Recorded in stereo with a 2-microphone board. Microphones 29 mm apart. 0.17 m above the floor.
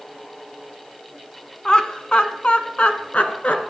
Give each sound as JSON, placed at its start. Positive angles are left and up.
{"t": 1.6, "sound": "laughter", "side_deg": 25, "distance_m": 1.2}